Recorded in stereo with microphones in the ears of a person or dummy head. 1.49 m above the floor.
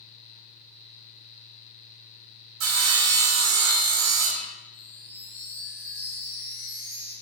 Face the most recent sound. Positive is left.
turn(degrees=-35)  # may be behind; listen again after turning